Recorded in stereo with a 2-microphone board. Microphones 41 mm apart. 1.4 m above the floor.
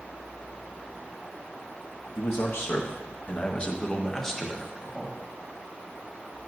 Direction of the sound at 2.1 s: 75° left (ahead or behind).